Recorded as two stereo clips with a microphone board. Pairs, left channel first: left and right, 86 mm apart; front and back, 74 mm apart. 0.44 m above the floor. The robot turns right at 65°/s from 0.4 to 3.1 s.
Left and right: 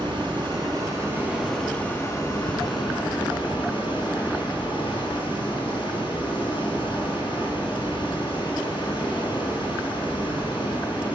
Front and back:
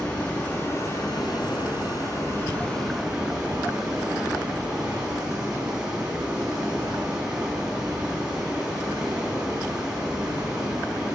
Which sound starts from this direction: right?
Running water, at 0.0 s.